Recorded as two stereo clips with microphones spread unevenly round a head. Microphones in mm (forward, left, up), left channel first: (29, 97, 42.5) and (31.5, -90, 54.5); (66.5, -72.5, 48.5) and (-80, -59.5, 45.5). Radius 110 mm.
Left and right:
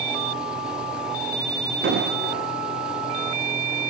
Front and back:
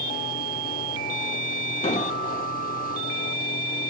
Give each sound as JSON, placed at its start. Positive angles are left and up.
{"t": 1.8, "sound": "an explosion", "azimuth_deg": -55, "distance_m": 1.4}